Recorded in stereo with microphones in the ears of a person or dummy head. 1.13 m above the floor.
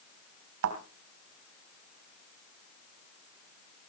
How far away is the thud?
About 2.5 m.